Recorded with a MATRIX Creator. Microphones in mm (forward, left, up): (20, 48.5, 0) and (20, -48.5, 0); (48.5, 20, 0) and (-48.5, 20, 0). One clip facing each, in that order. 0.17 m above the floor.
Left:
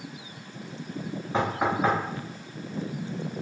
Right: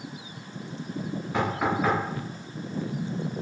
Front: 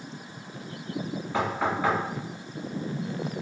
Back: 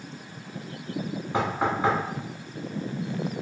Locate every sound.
1.3 s knocking: 130° left, 1.4 m